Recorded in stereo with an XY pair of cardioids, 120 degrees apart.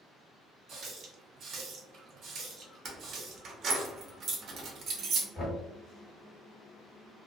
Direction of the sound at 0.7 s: 55° right.